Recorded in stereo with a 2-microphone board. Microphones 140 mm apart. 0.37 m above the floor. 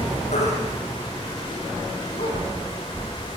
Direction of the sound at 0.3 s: 65° left (ahead or behind).